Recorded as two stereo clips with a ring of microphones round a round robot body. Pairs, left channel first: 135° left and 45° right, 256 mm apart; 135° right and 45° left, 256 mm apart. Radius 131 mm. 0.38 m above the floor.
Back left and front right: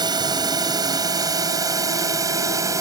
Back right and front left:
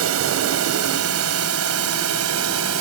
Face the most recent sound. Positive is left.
turn(degrees=30)